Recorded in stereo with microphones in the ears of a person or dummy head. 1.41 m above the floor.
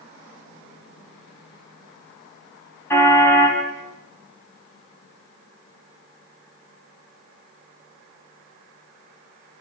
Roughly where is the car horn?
Centre.